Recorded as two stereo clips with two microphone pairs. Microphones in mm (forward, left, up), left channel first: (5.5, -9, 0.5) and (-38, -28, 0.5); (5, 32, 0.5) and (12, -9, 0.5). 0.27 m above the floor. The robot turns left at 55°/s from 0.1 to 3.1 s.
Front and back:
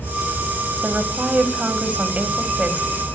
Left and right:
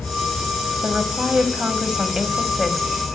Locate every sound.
0.8 s a woman speaking: 80° right, 1.6 m; by 3.0 s 155° left, 1.6 m